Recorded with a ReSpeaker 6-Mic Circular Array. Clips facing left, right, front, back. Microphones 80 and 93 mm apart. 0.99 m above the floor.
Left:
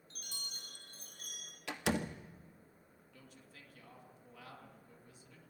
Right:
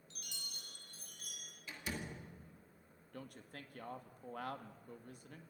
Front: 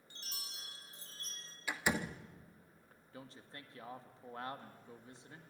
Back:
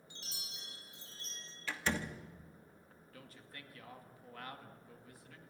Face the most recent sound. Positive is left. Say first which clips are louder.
# right 8 dB, front 3 dB
turn(degrees=-60)